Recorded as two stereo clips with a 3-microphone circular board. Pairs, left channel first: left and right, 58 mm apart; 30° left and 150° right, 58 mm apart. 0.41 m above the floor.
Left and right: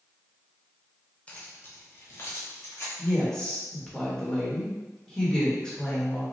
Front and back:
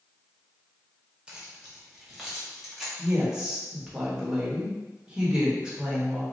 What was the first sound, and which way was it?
Keys jangling, 140° left.